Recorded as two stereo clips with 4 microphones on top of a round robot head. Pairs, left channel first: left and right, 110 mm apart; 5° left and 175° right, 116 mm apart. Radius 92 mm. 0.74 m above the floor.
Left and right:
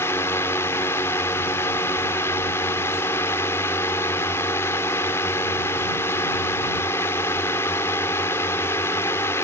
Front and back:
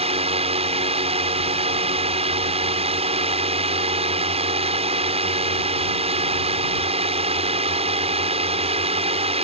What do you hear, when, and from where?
0.0 s a drone: 160° left